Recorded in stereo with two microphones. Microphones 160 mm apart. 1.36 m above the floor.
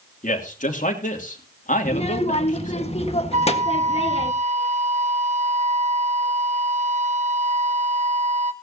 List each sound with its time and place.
0.2 s a man speaking: 50° left (ahead or behind), 2.5 m
1.9 s a child speaking: 40° left (ahead or behind), 1.5 m
3.3 s a flute: 45° right (ahead or behind), 1.3 m